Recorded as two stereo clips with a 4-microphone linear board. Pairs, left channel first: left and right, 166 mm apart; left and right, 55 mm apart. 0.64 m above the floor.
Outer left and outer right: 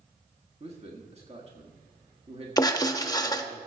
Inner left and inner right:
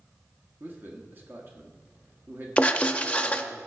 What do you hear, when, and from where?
0.6 s a man speaking: 40° right (ahead or behind), 1.4 m
2.6 s writing: 25° left (ahead or behind), 0.7 m